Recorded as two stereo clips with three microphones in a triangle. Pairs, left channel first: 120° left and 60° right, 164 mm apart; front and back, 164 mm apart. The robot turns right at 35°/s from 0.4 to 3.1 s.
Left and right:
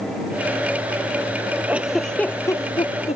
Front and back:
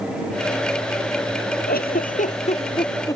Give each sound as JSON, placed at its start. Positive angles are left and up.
{"t": 1.7, "sound": "a giggle", "azimuth_deg": 20}